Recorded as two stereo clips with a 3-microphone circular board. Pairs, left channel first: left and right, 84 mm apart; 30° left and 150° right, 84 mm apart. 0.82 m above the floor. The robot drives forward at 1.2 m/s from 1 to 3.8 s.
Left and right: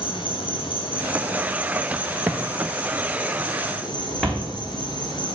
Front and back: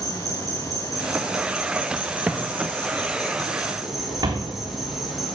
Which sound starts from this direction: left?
An insect, at 0.0 s.